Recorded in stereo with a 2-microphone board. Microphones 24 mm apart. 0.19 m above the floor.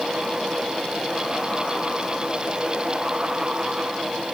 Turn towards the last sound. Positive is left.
No sound to turn to.